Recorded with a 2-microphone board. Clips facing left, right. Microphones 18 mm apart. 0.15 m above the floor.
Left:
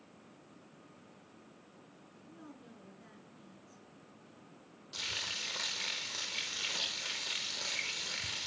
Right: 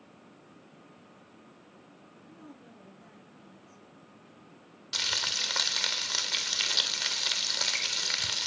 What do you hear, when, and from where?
2.3 s a woman speaking: 5° left (ahead or behind), 2 m
4.9 s frying: 55° right (ahead or behind), 1.6 m